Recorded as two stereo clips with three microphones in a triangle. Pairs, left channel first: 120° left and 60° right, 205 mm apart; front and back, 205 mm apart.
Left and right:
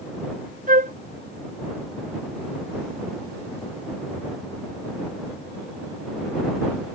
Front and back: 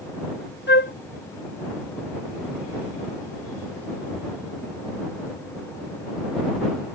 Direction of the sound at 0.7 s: 20° right.